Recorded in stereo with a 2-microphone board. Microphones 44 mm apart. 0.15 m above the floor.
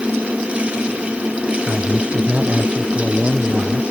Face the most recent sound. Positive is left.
turn(degrees=-30)  # may be behind; listen again after turning